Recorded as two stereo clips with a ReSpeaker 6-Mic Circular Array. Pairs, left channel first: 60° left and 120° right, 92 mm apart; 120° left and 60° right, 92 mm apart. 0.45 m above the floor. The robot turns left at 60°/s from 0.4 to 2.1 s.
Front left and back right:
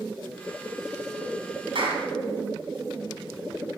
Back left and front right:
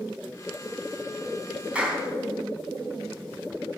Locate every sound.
1.8 s a clap: 135° right, 3 m; by 2.1 s 155° right, 3 m